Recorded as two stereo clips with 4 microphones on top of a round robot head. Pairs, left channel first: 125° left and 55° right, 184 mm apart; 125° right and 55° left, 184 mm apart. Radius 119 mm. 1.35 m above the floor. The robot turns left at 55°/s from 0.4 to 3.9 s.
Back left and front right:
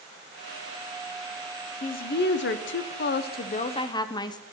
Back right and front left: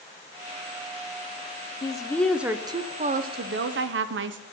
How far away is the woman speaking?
About 0.9 m.